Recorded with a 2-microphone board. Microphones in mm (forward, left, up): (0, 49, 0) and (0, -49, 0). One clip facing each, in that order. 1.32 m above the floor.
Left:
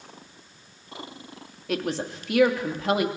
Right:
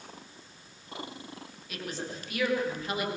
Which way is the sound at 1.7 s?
90° left.